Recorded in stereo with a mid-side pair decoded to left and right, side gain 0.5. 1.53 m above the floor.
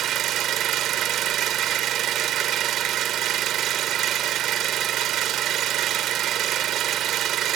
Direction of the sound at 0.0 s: 65° right.